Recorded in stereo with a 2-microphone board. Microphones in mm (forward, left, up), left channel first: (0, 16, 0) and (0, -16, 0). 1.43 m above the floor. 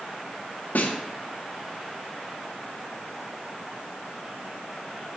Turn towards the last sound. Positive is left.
turn(degrees=65)  # may be behind; listen again after turning